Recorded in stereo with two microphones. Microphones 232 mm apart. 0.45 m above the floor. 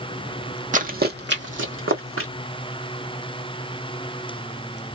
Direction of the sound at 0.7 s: 35° right (ahead or behind).